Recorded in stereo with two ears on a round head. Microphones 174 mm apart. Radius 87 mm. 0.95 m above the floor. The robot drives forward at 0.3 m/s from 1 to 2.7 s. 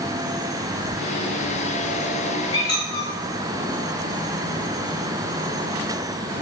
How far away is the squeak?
About 1.0 m.